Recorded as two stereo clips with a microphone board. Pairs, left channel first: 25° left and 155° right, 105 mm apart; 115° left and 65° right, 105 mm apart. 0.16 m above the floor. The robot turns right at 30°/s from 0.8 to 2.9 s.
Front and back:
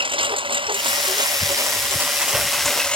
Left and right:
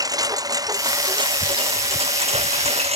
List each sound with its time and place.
0.0 s a lawn mower: 120° right; by 3.0 s 60° right